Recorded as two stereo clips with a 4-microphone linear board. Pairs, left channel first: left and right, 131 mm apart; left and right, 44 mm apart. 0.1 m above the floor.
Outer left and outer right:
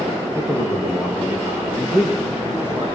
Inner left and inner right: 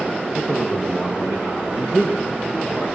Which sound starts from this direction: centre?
A man speaking, at 0.3 s.